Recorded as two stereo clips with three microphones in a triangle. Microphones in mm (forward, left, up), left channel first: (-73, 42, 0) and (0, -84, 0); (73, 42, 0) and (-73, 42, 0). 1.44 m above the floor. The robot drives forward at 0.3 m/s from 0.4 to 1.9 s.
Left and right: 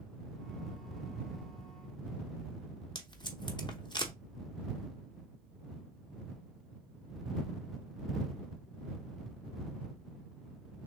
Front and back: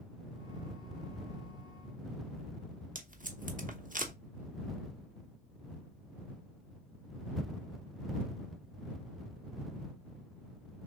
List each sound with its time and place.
3.0 s tape being pulled: straight behind, 0.9 m